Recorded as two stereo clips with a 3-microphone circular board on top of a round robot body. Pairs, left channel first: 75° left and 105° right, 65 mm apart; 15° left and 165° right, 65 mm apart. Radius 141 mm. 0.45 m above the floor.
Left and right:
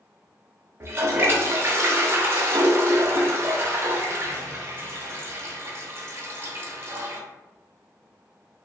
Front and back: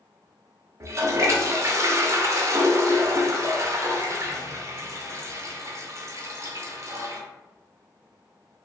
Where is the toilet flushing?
145° right, 0.7 m.